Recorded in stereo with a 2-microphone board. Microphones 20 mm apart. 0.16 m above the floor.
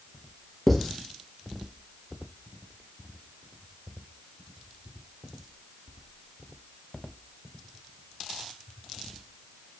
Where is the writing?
5° left (ahead or behind), 0.7 m.